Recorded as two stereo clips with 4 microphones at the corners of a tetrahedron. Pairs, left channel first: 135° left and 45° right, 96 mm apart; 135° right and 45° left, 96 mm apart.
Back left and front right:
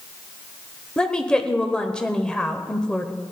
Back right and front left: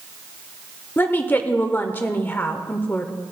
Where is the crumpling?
No crumpling in this recording.